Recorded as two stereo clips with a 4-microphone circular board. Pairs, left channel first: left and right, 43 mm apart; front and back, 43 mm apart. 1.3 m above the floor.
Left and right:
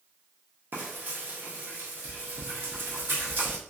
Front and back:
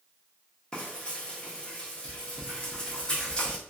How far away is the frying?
About 0.8 m.